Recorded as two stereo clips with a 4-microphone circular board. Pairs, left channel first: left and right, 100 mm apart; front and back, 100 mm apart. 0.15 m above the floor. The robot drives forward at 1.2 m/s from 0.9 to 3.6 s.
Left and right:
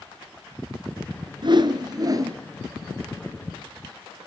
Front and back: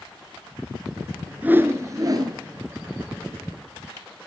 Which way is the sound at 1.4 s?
110° right.